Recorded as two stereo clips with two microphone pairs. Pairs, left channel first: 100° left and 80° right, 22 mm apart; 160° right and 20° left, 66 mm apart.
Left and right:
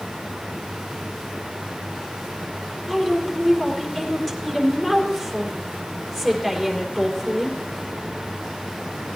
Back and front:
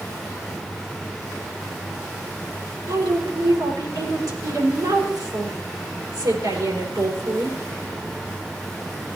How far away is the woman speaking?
About 3.5 m.